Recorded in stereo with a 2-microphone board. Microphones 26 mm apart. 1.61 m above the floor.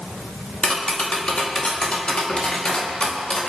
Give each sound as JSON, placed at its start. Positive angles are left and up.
{"t": 0.6, "sound": "tapping", "side_deg": 45, "distance_m": 2.0}